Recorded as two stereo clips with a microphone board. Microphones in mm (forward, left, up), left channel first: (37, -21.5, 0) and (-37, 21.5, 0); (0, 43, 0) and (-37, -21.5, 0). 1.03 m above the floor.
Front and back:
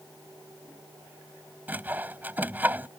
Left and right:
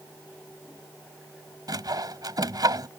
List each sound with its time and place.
1.7 s sawing: 145° right